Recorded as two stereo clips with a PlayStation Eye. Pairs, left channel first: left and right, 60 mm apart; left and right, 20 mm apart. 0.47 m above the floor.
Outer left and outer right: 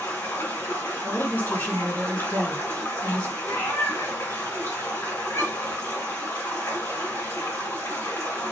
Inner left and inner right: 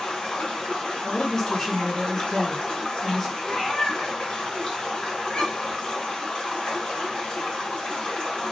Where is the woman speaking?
35° left (ahead or behind), 1.8 m.